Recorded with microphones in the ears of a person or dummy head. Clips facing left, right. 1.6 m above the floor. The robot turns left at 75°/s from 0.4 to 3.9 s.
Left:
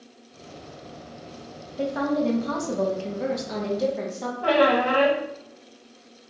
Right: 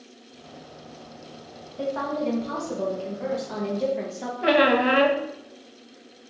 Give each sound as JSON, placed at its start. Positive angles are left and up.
{"t": 1.8, "sound": "a woman speaking", "azimuth_deg": 155, "distance_m": 0.9}
{"t": 4.4, "sound": "a squeak", "side_deg": -30, "distance_m": 0.5}